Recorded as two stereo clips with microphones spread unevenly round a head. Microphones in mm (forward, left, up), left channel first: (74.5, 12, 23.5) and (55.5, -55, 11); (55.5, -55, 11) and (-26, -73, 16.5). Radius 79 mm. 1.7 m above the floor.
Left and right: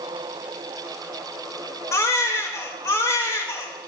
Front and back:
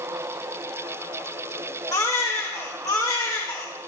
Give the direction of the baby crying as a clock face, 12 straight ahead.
10 o'clock.